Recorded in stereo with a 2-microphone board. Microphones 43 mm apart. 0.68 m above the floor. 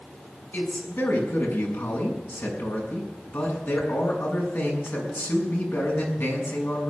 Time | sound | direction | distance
0.5 | a man speaking | 75° left (ahead or behind) | 6 m